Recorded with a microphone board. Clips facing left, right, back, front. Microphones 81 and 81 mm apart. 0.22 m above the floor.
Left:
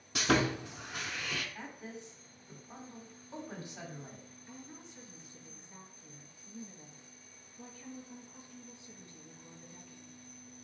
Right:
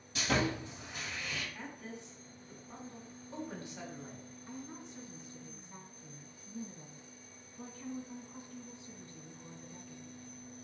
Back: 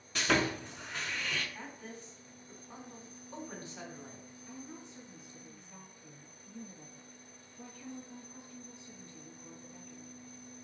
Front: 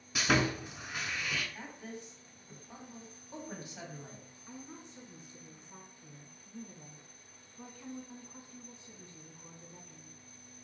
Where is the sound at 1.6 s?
55° left, 1.1 m.